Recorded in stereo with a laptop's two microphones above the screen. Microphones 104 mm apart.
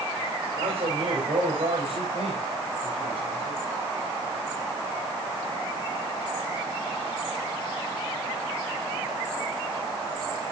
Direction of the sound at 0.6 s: 80° right.